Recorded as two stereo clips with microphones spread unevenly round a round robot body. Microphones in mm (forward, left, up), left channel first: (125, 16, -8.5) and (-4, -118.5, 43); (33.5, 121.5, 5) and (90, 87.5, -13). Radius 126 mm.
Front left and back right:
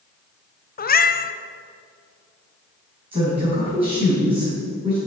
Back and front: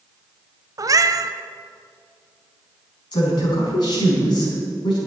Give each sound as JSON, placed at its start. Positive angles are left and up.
{"t": 0.8, "sound": "a cat meowing", "azimuth_deg": 5, "distance_m": 0.9}
{"t": 3.1, "sound": "a woman speaking", "azimuth_deg": 150, "distance_m": 5.0}